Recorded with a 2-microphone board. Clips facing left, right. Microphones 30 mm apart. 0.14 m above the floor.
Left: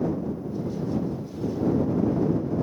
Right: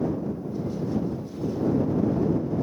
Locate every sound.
Only background noise.